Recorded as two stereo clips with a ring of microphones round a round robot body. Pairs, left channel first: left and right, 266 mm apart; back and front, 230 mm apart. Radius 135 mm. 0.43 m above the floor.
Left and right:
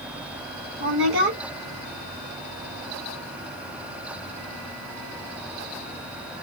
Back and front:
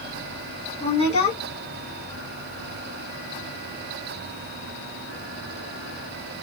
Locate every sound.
0.8 s a woman speaking: 120° right, 1.9 m